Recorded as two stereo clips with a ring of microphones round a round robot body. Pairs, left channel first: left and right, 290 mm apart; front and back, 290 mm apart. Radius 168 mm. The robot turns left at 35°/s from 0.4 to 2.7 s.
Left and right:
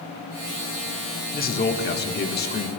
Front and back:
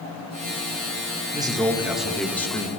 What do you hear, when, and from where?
1.3 s a man speaking: 115° left, 1.2 m; by 2.7 s 70° left, 1.2 m